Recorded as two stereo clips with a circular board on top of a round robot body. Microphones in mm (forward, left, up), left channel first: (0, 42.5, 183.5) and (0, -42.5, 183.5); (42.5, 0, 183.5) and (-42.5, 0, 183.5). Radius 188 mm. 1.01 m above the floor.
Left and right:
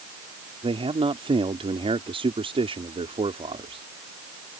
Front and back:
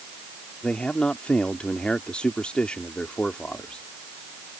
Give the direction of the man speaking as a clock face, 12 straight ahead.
3 o'clock.